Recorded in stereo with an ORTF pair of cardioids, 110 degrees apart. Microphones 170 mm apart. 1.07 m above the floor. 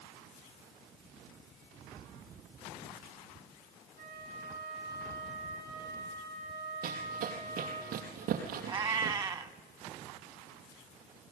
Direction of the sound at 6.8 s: 65° right.